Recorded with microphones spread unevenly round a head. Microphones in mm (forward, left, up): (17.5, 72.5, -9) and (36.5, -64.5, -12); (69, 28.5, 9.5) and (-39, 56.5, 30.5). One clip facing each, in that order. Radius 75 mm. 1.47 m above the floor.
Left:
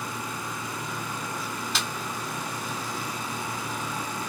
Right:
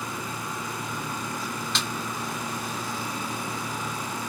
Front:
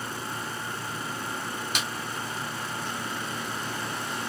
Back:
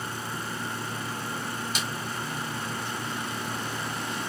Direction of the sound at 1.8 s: 15° left.